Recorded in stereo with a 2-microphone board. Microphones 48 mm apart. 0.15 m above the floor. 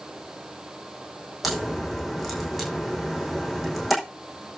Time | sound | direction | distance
1.4 | a crack | centre (ahead or behind) | 6 m